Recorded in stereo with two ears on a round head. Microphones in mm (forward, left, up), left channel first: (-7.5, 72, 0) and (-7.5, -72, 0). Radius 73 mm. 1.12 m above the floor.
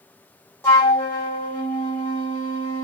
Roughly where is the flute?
Centre.